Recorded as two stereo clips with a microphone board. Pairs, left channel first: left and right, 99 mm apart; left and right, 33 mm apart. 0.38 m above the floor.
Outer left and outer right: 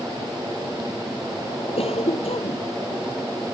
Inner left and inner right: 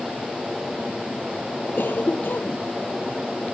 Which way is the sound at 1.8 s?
85° left.